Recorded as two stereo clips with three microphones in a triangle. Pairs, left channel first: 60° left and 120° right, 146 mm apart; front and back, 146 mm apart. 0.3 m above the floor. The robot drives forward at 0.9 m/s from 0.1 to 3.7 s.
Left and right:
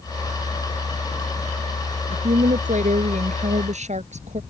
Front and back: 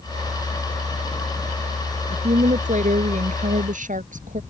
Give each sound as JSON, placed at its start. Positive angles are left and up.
{"t": 2.1, "sound": "a woman speaking", "azimuth_deg": -145}